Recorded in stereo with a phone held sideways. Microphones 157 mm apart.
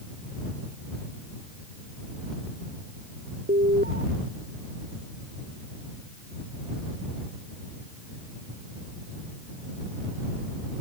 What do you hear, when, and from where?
3.5 s an alarm: 75° right (ahead or behind)